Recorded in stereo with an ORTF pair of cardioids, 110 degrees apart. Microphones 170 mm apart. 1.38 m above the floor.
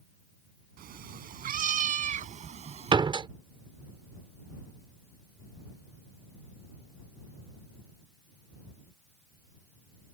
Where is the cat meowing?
65° right; by 3.0 s 35° right.